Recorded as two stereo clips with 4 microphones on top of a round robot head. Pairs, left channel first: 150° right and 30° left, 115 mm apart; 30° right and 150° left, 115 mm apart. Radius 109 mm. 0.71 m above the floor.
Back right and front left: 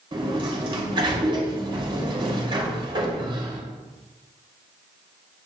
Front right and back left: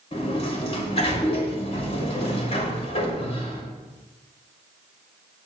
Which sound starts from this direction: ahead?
A sliding door, at 0.1 s.